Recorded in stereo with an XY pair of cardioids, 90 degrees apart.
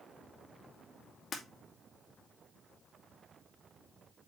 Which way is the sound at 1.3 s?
50° left.